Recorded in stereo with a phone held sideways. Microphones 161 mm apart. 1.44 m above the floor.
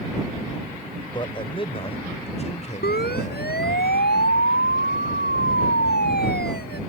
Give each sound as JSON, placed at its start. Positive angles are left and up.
{"t": 1.1, "sound": "a man speaking", "side_deg": 30}
{"t": 2.8, "sound": "a siren", "side_deg": 90}